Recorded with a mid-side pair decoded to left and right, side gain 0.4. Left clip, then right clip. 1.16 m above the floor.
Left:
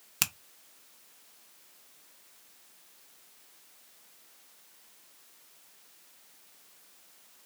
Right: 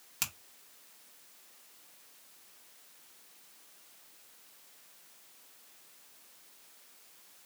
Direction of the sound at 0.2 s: 60° left.